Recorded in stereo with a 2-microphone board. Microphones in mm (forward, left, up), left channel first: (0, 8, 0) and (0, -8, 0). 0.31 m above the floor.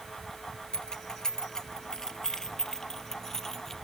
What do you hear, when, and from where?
0.7 s keys jangling: 55° left (ahead or behind); by 3.8 s 30° left (ahead or behind)